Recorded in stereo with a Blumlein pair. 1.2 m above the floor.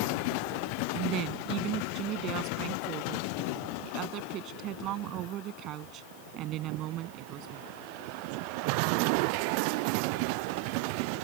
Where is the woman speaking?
35° right.